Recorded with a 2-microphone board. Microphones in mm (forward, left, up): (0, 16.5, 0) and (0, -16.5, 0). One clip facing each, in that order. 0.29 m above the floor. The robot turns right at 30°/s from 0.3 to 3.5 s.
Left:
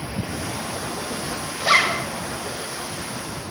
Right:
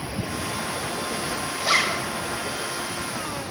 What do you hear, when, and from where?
1.6 s a zipper: 20° left (ahead or behind), 1.0 m; by 2.0 s 25° left (ahead or behind), 1.0 m